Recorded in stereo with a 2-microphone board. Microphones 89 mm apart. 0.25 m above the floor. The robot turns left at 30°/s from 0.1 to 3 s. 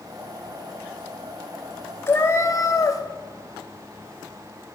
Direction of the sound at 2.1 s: 25° left (ahead or behind).